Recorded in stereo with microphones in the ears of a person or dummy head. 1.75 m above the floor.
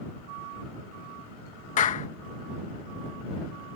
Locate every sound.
1.8 s a clap: 45° left (ahead or behind)